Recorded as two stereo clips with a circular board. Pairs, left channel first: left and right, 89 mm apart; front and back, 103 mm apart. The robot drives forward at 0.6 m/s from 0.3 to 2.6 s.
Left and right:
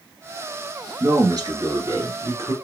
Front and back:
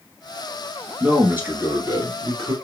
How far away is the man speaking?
About 1.5 m.